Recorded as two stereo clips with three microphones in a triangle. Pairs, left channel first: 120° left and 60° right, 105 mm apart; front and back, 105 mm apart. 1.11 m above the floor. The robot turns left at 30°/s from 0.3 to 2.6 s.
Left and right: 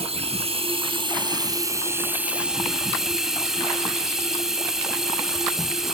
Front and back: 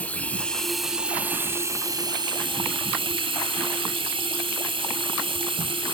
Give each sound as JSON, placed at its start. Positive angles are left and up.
{"t": 0.0, "sound": "running water", "azimuth_deg": -75, "distance_m": 3.5}